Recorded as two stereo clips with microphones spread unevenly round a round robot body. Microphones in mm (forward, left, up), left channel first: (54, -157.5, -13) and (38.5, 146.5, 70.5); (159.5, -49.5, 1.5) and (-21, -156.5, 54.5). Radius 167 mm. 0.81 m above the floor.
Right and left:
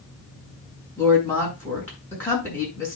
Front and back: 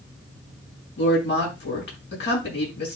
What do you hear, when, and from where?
1.0 s a woman speaking: 5° right, 7.5 m